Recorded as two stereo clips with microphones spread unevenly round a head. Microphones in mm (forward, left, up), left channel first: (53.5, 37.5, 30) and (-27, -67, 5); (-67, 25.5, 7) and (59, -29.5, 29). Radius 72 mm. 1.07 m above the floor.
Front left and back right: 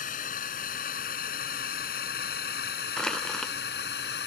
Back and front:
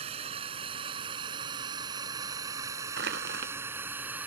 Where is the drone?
25° left; by 4.3 s 55° left.